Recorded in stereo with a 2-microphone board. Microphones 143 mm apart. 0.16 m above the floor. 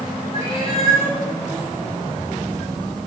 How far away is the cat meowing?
About 4 m.